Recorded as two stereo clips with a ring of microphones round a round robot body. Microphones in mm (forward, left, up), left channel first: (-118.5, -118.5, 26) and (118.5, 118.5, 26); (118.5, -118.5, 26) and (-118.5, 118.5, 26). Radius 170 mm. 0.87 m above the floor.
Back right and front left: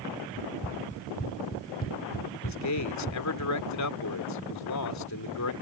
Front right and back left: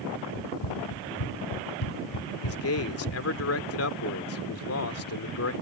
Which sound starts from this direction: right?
A man speaking, at 2.4 s.